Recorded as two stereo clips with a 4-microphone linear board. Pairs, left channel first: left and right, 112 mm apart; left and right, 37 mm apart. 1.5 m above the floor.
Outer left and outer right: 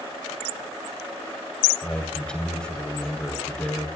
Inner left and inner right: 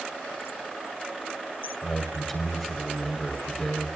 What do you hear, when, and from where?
1.8 s a man speaking: 10° left (ahead or behind), 4.5 m